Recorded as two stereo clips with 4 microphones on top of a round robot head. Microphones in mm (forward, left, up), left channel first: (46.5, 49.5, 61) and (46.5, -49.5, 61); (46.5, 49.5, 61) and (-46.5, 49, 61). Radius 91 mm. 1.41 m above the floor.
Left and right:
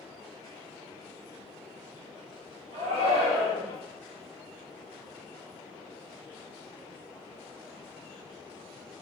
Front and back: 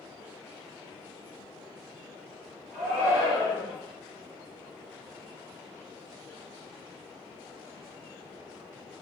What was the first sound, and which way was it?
A shout, 95° right.